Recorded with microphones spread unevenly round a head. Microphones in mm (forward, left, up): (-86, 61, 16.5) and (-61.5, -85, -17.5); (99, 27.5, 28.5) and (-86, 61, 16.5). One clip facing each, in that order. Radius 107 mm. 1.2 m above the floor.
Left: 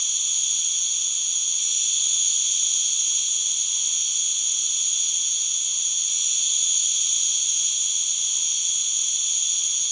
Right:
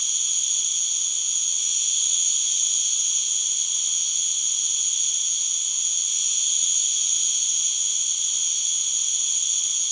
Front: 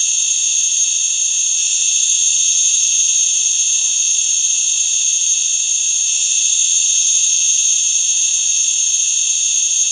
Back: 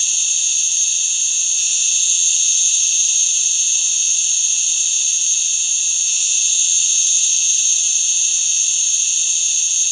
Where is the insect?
25° left, 1.1 m.